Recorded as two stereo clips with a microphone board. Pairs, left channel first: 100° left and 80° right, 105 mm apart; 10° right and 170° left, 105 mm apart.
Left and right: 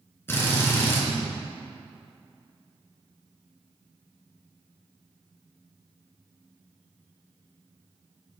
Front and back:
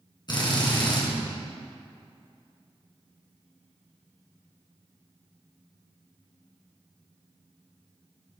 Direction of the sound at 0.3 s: 35° left.